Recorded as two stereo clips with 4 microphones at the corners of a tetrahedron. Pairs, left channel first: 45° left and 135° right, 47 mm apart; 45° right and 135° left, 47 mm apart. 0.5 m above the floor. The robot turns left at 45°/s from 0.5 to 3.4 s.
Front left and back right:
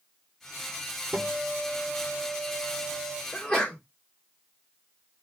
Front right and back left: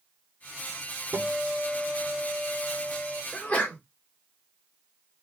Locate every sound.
1.1 s a guitar: 170° left, 0.5 m; by 3.2 s 75° left, 0.5 m
3.3 s a sneeze: 15° right, 1.2 m; by 3.8 s 20° right, 1.2 m